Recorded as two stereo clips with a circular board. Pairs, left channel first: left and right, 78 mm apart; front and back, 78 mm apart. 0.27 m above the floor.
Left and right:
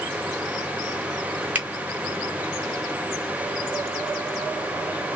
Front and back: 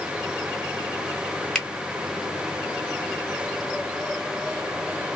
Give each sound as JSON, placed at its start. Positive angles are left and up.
{"t": 1.6, "sound": "a finger snap", "azimuth_deg": -70, "distance_m": 1.2}